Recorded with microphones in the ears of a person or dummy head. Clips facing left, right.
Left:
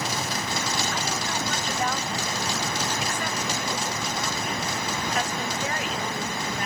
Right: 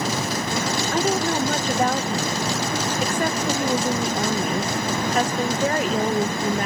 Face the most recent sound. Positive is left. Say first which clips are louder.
# right 9 dB
turn(degrees=-40)  # may be behind; listen again after turning